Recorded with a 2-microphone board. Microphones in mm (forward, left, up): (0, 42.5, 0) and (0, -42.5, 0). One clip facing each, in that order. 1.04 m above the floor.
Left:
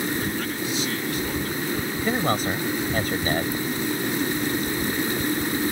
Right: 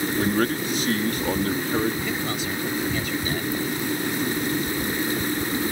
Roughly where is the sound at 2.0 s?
Left.